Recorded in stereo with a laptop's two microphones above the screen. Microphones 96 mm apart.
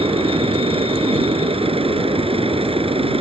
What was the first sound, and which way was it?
A machine running, 80° right.